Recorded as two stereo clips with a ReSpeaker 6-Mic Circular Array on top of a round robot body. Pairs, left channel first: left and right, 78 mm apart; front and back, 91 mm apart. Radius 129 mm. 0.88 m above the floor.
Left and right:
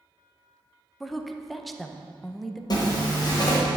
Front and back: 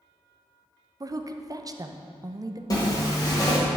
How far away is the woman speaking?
About 0.6 m.